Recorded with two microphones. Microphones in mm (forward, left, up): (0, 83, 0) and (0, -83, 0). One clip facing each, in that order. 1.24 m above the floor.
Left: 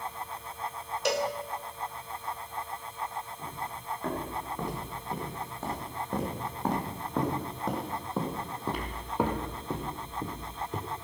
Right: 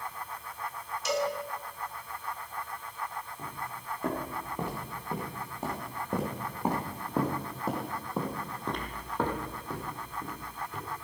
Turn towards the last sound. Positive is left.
turn(degrees=45)  # may be behind; listen again after turning